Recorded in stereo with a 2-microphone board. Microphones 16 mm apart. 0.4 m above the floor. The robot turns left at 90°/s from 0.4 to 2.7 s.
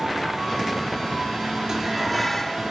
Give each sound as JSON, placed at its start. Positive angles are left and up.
{"t": 1.7, "sound": "dishes clattering", "azimuth_deg": -145, "distance_m": 3.5}